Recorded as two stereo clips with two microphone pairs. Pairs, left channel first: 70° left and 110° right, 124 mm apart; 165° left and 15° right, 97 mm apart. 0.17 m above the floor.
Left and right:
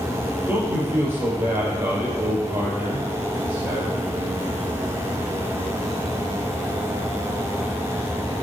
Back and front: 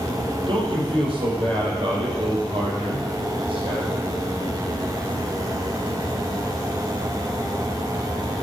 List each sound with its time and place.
0.5 s a man speaking: 40° right, 5 m